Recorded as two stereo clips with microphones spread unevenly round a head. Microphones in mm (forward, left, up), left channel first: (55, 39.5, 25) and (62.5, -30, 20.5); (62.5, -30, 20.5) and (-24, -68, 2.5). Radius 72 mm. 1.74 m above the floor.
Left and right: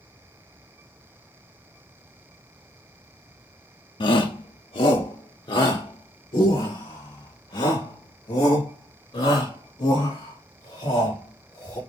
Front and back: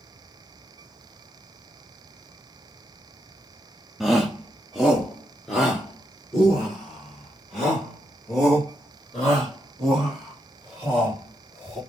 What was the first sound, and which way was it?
A shout, 110° left.